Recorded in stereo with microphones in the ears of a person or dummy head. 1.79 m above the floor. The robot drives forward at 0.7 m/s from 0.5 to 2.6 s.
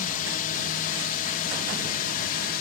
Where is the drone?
45° left (ahead or behind); by 2.6 s 50° left (ahead or behind).